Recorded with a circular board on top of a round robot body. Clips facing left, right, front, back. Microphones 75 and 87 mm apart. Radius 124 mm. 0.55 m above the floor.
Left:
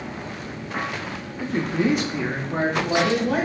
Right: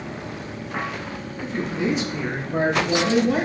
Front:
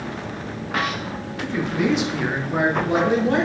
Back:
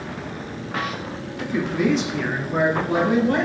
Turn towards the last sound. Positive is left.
turn(degrees=65)